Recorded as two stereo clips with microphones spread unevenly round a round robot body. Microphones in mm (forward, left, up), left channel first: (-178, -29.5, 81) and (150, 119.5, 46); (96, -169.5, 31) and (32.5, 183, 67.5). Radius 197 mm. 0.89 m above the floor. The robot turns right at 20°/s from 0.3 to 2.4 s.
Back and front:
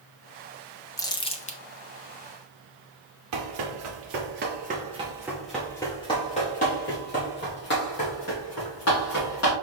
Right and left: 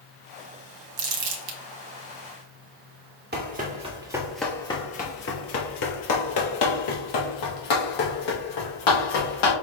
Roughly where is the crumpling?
Behind left.